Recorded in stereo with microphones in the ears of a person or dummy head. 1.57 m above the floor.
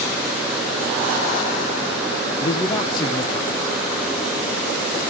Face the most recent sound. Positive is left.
turn(degrees=25)  # may be behind; listen again after turning